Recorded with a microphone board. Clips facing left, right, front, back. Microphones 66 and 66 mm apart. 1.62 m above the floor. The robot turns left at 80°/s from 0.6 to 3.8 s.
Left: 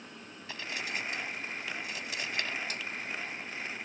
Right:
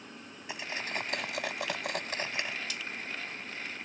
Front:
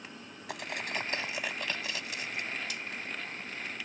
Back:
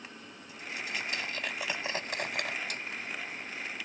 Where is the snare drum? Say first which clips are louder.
Left 1 dB, back 1 dB; 140° left; by 2.9 s 130° left.